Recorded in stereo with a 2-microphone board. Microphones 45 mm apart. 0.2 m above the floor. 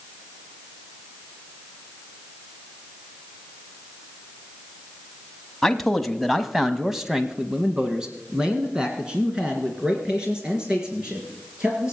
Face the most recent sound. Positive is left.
turn(degrees=-20)  # may be behind; listen again after turning